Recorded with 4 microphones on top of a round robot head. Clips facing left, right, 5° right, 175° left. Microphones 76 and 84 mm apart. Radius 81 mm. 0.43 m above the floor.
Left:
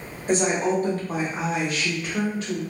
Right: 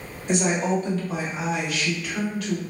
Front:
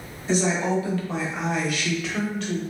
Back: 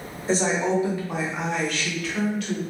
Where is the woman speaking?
130° left, 1.2 m; by 2.6 s 35° left, 1.2 m.